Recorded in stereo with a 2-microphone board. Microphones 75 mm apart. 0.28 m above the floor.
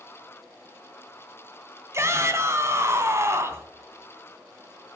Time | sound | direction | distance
1.9 | a shout | 40° right (ahead or behind) | 2 m